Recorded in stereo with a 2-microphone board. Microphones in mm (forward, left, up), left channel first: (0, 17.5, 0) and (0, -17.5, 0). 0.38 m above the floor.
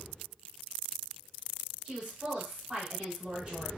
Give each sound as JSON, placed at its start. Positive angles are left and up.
{"t": 1.9, "sound": "a woman speaking", "side_deg": -40, "distance_m": 1.2}